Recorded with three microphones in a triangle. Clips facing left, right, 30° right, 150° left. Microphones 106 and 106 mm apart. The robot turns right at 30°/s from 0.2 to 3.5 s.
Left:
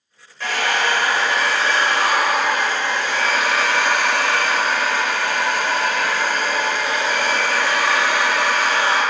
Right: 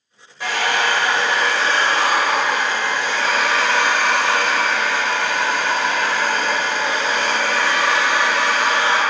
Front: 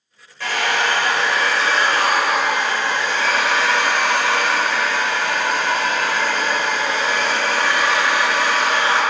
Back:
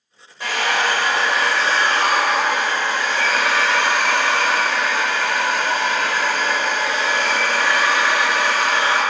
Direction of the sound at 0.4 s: 155° right.